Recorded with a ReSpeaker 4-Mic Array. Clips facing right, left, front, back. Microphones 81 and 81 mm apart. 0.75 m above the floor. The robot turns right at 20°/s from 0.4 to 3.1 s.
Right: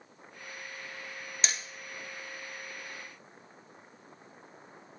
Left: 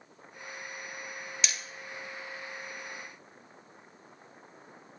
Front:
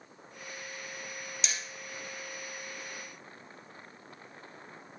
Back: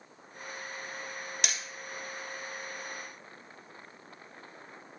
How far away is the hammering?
About 0.6 m.